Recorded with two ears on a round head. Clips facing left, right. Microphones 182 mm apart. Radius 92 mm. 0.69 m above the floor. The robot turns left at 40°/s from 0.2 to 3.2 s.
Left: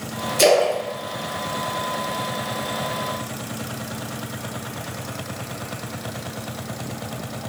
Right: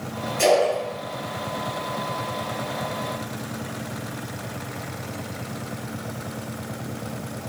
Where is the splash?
50° left (ahead or behind), 0.8 m; by 2.2 s 5° left (ahead or behind), 0.8 m.